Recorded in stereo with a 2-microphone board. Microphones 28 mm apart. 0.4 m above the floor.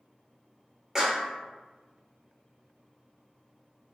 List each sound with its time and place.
0.9 s a clap: 15° right (ahead or behind), 0.7 m